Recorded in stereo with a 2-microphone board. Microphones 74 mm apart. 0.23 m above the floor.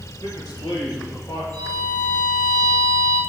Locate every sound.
0.2 s a man speaking: 70° left (ahead or behind), 4 m; by 1.4 s 55° left (ahead or behind), 4.5 m
1.5 s a violin: 30° left (ahead or behind), 2.5 m